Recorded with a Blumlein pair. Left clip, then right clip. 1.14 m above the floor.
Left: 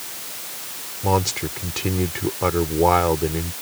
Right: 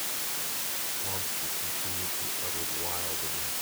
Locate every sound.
1.0 s a man speaking: 40° left